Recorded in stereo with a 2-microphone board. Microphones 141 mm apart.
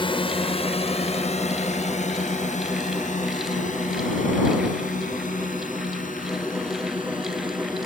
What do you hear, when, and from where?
0.0 s a drone: 40° left (ahead or behind); by 7.9 s 80° left